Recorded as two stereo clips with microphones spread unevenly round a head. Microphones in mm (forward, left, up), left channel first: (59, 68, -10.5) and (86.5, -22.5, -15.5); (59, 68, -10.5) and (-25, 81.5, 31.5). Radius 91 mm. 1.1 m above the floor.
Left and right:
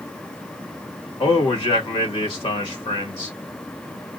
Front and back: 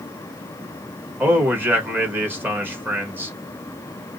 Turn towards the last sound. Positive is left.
turn(degrees=95)